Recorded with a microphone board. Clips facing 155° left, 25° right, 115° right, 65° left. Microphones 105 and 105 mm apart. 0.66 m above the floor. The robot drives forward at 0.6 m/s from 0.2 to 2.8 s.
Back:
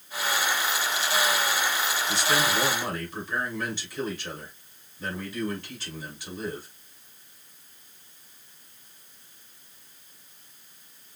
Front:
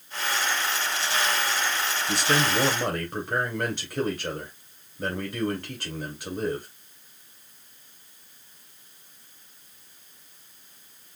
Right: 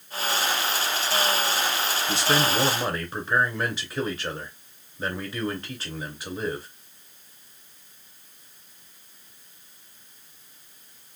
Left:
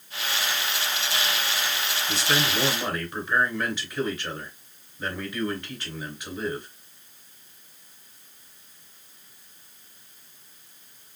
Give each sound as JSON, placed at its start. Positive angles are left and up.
{"t": 2.1, "sound": "a man speaking", "azimuth_deg": -50, "distance_m": 2.5}